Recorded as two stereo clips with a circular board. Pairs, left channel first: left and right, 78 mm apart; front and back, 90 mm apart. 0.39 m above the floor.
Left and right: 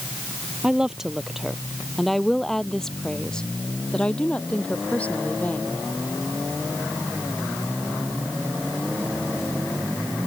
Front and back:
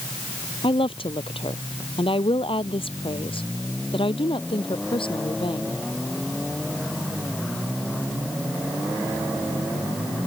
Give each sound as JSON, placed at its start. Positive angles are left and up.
{"t": 0.6, "sound": "a woman speaking", "azimuth_deg": -10}